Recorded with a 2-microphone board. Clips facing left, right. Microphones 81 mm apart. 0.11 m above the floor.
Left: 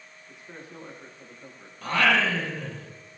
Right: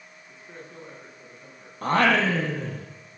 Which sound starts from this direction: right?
Singing, at 1.8 s.